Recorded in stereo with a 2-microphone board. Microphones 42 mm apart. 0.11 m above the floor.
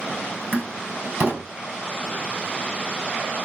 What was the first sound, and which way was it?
A door slam, 50° right (ahead or behind).